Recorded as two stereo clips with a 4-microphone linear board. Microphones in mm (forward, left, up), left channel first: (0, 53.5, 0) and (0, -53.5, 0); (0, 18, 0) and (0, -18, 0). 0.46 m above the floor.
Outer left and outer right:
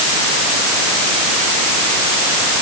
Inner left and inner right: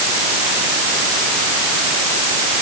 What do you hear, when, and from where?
Only background noise.